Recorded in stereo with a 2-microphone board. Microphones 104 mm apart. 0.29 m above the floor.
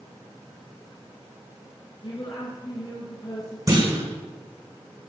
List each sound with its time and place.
2.0 s a woman speaking: 55° left (ahead or behind), 6 m
3.7 s a clunk: 35° right (ahead or behind), 6.5 m